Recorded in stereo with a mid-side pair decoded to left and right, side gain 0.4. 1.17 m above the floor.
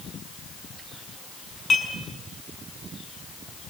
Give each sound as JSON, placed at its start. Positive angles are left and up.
{"t": 1.7, "sound": "dishes clattering", "azimuth_deg": 40, "distance_m": 9.0}